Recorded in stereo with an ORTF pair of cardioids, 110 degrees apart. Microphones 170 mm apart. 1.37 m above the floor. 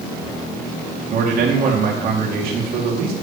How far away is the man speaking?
About 2.5 m.